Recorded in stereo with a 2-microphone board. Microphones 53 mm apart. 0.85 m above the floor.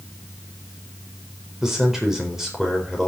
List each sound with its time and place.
1.6 s a man speaking: 5° right (ahead or behind), 4 m